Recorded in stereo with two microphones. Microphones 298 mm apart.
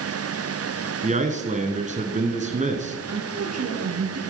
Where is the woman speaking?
60° right (ahead or behind), 2.5 m.